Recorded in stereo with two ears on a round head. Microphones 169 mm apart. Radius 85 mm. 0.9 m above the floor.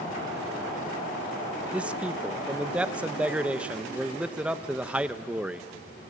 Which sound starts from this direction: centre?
A man speaking, at 1.7 s.